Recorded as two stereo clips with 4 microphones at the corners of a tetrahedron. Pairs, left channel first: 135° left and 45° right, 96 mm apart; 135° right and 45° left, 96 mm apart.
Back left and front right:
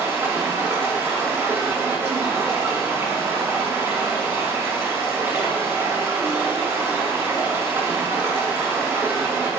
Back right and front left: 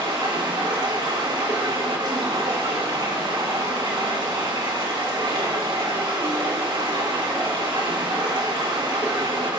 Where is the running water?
15° left, 2.5 m.